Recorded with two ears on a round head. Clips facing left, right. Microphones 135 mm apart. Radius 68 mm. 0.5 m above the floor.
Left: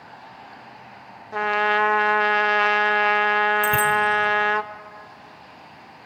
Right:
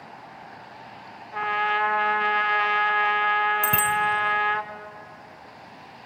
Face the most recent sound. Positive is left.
turn(degrees=-15)  # may be behind; listen again after turning